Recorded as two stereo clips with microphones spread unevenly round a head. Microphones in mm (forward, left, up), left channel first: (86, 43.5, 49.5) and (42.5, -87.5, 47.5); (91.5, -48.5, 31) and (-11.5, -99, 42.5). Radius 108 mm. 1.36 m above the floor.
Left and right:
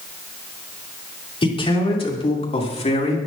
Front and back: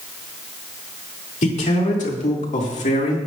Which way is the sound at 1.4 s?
20° left.